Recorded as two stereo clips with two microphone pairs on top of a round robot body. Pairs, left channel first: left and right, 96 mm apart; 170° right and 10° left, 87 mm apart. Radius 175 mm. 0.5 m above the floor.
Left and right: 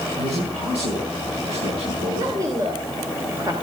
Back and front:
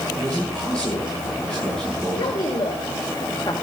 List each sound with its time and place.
0.2 s a man speaking: 90° right, 6.5 m
2.1 s a woman speaking: 145° right, 3 m